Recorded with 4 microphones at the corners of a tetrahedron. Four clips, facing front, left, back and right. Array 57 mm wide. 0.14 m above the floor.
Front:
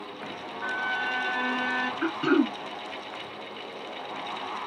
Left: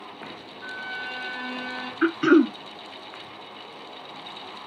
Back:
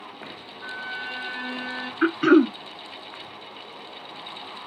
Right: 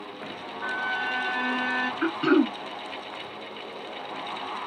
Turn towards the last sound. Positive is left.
turn(degrees=150)